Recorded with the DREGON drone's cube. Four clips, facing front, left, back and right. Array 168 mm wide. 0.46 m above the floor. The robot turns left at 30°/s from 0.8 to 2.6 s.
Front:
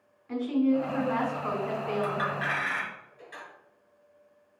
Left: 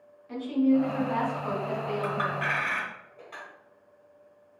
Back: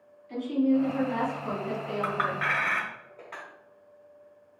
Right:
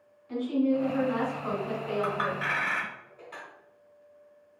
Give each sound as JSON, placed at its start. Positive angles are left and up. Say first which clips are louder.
{"t": 0.3, "sound": "a woman speaking", "louder": "left 2 dB, even", "azimuth_deg": 20, "distance_m": 1.8}
{"t": 2.0, "sound": "a clink", "louder": "left 1 dB, back 1 dB", "azimuth_deg": -170, "distance_m": 1.0}